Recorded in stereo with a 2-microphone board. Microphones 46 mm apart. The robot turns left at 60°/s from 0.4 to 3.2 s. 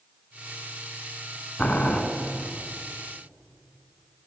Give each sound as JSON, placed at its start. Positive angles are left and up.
{"t": 1.6, "sound": "boiling", "side_deg": 35, "distance_m": 0.7}